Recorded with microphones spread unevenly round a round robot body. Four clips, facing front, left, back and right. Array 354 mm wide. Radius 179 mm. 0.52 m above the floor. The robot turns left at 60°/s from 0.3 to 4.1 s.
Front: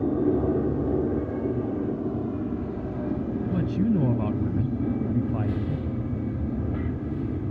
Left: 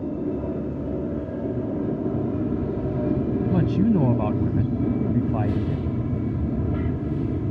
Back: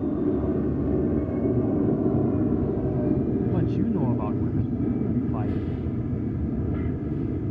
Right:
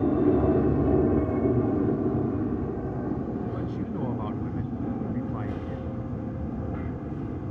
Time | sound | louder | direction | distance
0.0 | an aircraft | right 5 dB, front 1 dB | 70° right | ?
3.5 | a man speaking | left 11 dB, even | 65° left | ?